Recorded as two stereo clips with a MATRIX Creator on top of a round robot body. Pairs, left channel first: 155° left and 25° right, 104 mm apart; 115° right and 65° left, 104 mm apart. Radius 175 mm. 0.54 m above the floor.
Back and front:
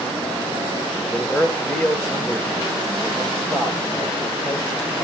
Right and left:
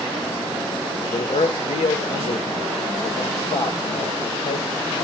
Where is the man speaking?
120° right, 2 m.